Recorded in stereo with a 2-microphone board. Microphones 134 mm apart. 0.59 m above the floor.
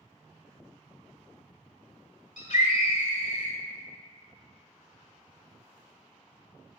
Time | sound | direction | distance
2.4 | a scream | 60° left (ahead or behind) | 2.5 m